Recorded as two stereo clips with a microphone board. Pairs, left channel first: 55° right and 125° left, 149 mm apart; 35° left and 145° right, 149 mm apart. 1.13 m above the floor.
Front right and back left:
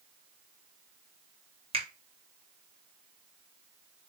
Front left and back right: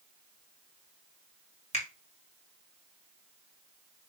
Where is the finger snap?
75° left, 1.4 m.